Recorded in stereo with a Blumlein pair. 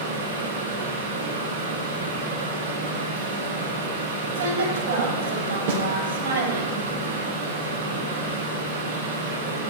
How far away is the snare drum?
About 1.6 m.